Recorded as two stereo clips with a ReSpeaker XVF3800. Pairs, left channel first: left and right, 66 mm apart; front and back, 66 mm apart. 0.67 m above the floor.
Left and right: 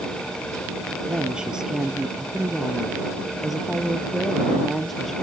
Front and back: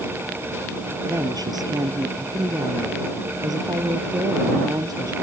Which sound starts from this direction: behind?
A woman speaking, at 1.1 s.